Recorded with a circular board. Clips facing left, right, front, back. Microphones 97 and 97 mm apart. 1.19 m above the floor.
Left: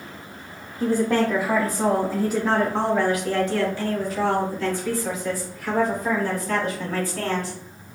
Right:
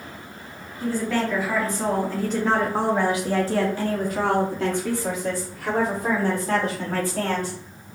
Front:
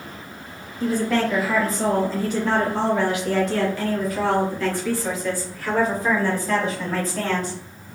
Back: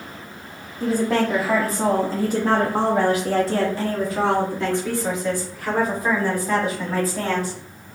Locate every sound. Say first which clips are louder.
0.8 s a woman speaking: left 4 dB, back 1 dB; 120° left, 1.2 m; by 7.6 s 100° right, 3 m